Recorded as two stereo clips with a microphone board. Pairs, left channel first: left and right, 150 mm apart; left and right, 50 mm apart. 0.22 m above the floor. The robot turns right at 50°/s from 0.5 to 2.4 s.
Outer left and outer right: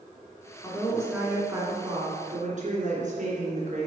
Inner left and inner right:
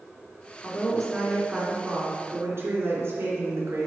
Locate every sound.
0.6 s a woman speaking: 155° left, 3 m; by 3.9 s 115° right, 3 m